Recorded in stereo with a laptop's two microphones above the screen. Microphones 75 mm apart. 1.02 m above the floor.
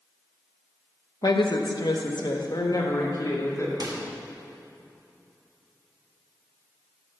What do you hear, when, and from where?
1.2 s a woman speaking: 55° left (ahead or behind), 1.0 m; by 3.7 s 50° left (ahead or behind), 2 m
3.8 s a microwave: 65° right (ahead or behind), 1.2 m